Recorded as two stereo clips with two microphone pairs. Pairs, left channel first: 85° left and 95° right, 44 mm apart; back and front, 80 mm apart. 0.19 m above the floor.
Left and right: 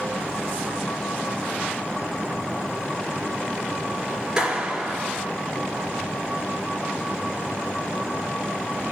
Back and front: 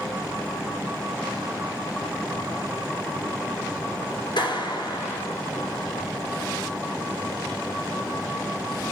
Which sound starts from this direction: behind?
A clap, at 4.4 s.